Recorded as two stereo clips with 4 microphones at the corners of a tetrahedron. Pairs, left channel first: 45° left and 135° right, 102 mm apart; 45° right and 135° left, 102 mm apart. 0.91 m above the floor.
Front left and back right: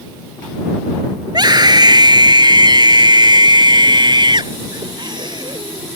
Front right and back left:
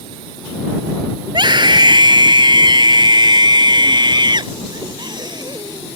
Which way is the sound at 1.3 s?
Straight behind.